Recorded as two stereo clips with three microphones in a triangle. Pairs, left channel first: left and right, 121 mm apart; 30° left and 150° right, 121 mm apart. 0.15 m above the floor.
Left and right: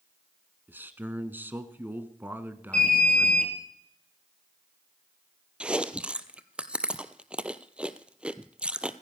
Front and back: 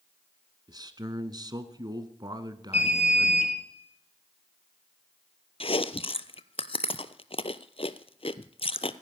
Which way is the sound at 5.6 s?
10° right.